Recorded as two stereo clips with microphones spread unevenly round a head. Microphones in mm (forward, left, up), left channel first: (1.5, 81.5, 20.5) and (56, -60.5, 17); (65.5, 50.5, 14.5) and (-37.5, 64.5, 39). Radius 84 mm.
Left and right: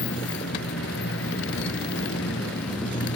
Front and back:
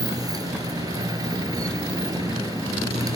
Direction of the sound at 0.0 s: 120° left.